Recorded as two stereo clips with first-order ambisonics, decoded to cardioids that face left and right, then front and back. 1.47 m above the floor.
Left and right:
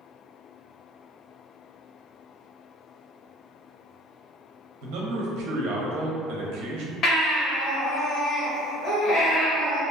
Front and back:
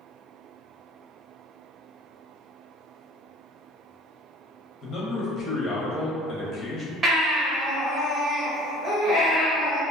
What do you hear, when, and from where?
4.8 s a man speaking: 65° right, 0.7 m
7.0 s a baby crying: 115° left, 0.9 m